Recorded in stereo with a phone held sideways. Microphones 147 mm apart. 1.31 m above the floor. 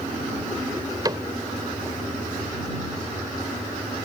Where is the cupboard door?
25° right (ahead or behind).